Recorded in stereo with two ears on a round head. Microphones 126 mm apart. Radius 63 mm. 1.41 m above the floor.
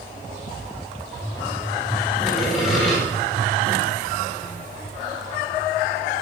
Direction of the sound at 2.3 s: Centre (ahead or behind).